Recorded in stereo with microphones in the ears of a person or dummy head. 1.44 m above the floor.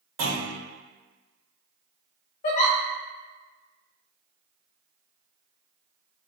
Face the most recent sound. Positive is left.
turn(degrees=35)  # may be behind; listen again after turning